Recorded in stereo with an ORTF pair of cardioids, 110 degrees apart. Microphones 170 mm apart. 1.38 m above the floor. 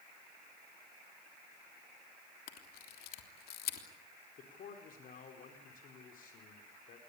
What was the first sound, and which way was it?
A camera shutter, 65° left.